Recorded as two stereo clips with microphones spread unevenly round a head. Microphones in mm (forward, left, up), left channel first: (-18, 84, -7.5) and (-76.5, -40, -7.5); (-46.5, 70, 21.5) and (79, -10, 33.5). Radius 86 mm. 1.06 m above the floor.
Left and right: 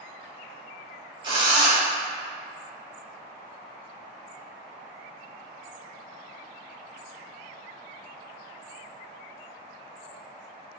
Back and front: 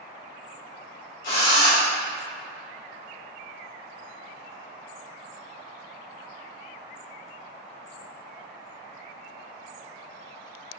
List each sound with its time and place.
1.2 s a drill: 170° right, 1.9 m